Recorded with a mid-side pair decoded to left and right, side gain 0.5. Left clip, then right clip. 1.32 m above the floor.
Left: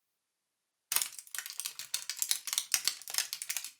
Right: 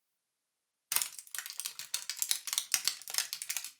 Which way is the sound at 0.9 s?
Straight ahead.